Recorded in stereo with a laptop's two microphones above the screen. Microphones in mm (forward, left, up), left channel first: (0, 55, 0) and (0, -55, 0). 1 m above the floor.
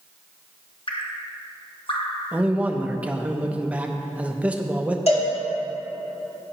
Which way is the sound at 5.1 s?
70° left (ahead or behind).